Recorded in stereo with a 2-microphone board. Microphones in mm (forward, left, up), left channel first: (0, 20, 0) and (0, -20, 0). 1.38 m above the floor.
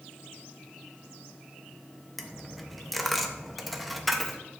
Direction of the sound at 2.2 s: Centre (ahead or behind).